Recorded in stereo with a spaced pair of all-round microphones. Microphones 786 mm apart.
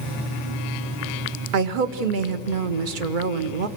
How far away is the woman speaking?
About 1.1 m.